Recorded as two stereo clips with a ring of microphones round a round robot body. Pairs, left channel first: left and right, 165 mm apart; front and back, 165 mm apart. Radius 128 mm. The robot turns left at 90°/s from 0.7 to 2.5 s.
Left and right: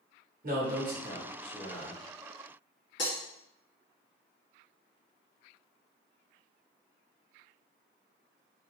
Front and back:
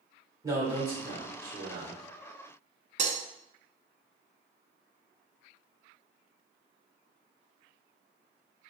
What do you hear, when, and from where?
0.4 s a man speaking: 110° right, 1.9 m; by 2.0 s 130° left, 1.9 m
3.0 s breaking glass: 135° left, 0.9 m